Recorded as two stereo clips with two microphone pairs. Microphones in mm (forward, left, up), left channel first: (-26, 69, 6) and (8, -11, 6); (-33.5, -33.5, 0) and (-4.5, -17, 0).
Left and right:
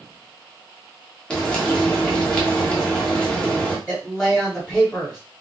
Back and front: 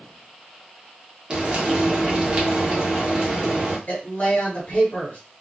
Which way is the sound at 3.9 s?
155° right.